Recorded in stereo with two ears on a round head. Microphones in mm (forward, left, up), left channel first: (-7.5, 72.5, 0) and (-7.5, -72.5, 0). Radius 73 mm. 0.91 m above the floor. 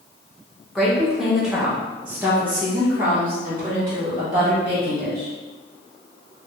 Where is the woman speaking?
Centre (ahead or behind), 0.7 m; by 5.3 s 15° right (ahead or behind), 2 m.